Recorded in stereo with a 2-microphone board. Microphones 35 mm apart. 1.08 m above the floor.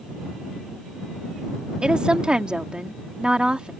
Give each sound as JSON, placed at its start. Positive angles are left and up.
{"t": 1.8, "sound": "a woman speaking", "side_deg": -25}